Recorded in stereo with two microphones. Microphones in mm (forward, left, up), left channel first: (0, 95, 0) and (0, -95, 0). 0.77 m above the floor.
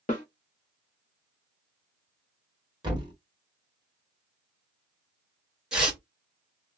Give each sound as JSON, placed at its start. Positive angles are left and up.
{"t": 0.1, "sound": "a snare drum", "side_deg": 45, "distance_m": 1.0}
{"t": 2.8, "sound": "a thud", "side_deg": -25, "distance_m": 1.4}
{"t": 5.7, "sound": "tearing paper", "side_deg": -5, "distance_m": 1.3}